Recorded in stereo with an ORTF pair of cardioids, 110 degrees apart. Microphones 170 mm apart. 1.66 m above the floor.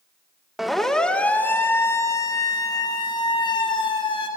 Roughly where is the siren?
Ahead.